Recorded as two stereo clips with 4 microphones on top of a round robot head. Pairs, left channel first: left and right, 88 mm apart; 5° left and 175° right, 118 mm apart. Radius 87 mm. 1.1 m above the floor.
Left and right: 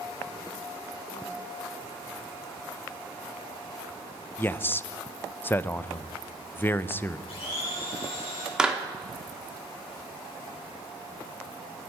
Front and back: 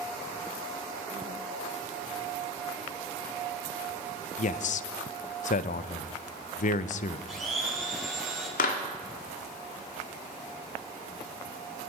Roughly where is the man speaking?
Ahead.